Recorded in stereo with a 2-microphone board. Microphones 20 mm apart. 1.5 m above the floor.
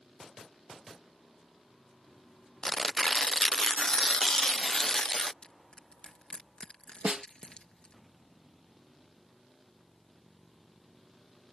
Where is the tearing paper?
30° left (ahead or behind).